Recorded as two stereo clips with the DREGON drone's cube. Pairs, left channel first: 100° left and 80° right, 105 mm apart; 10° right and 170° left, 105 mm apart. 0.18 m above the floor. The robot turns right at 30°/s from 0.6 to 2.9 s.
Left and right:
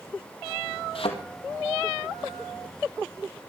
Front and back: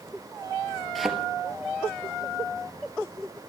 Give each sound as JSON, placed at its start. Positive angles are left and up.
{"t": 0.9, "sound": "a thud", "azimuth_deg": 75, "distance_m": 1.6}